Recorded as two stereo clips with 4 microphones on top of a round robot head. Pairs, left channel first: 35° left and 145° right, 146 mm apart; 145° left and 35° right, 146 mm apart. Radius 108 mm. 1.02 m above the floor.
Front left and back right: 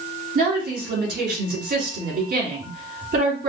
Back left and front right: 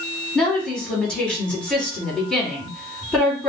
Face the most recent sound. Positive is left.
turn(degrees=-130)